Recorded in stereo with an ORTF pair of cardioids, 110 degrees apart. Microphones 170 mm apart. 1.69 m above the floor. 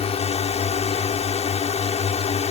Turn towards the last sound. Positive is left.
turn(degrees=40)